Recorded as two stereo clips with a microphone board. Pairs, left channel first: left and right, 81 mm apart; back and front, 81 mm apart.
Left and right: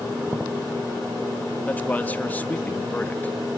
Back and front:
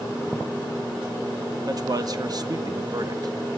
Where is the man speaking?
25° left, 1.4 m.